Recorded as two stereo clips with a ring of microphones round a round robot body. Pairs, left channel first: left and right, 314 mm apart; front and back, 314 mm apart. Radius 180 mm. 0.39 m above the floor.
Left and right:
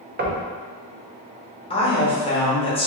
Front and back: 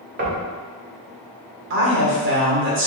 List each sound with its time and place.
0.2 s knocking: 135° right, 0.6 m
1.7 s a woman speaking: 155° left, 1.0 m